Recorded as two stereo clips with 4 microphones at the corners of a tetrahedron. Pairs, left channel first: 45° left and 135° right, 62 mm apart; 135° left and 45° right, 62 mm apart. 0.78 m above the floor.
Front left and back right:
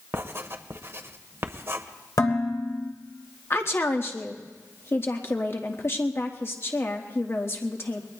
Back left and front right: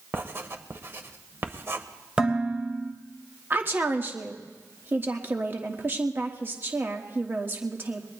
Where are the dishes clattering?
25° left, 2.0 m.